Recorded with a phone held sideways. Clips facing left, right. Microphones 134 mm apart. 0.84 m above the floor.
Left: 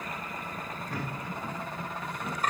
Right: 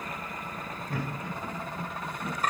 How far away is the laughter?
About 4.5 m.